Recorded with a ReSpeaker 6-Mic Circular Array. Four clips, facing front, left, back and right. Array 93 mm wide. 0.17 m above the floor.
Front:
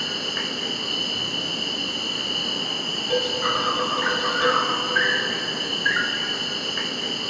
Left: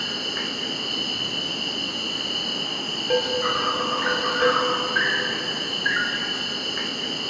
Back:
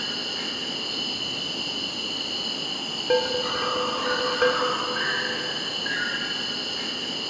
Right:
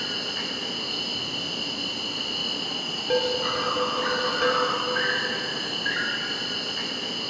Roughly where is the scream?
I don't hear a scream.